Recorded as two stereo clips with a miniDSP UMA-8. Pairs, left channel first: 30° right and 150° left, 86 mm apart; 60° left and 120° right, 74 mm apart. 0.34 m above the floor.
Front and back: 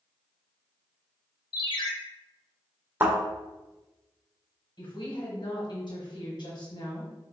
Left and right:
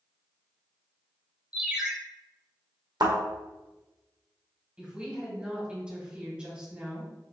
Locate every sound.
1.5 s a ringtone: 45° right, 0.9 m
3.0 s a thud: 140° right, 1.7 m
4.8 s a woman speaking: 45° right, 1.8 m